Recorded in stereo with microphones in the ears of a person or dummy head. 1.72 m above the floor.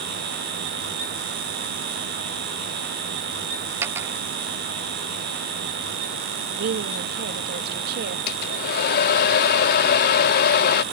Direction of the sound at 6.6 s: 55° right (ahead or behind).